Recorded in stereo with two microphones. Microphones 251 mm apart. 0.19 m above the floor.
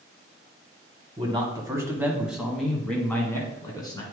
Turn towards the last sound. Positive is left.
turn(degrees=15)  # may be behind; listen again after turning